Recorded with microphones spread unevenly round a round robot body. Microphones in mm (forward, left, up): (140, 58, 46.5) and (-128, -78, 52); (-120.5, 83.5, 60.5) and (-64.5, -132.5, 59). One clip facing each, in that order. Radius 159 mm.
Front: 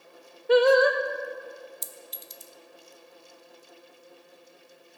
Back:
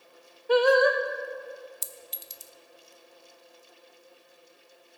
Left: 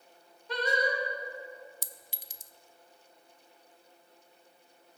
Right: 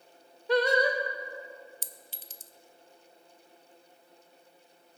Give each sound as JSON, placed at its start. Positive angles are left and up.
{"t": 0.5, "sound": "singing", "azimuth_deg": -40, "distance_m": 1.0}
{"t": 1.8, "sound": "a clink", "azimuth_deg": 175, "distance_m": 0.6}